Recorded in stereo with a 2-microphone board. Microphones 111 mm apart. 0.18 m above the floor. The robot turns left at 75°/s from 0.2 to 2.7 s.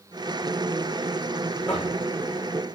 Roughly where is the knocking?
Centre.